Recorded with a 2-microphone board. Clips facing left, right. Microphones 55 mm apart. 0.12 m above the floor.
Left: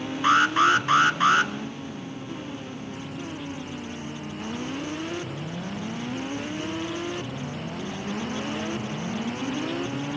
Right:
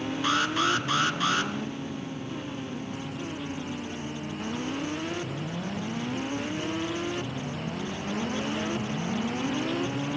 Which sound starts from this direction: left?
An alarm, at 0.2 s.